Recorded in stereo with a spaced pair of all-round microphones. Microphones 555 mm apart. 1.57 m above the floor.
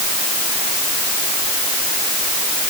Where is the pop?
No pop in this recording.